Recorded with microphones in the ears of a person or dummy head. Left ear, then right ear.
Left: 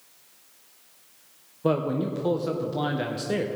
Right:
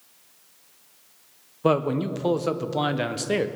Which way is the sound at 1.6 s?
30° right (ahead or behind).